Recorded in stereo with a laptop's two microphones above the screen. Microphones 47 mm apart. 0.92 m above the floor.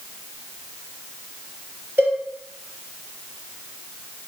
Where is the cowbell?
35° right (ahead or behind), 3.5 m.